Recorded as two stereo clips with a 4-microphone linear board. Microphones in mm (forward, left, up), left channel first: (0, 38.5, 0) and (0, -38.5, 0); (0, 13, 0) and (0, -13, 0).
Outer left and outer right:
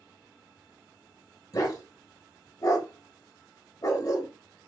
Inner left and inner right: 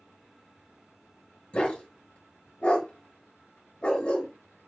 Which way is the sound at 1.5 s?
50° left (ahead or behind).